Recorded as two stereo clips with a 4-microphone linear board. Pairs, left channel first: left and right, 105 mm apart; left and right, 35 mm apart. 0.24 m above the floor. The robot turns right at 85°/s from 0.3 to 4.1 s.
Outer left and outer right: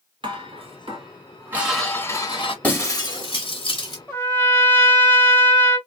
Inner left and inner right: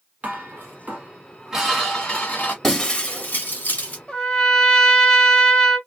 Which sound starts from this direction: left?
A trumpet, at 4.1 s.